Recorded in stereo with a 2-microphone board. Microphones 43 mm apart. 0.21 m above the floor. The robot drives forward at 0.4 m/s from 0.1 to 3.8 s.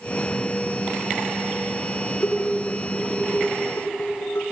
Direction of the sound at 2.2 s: 60° left (ahead or behind).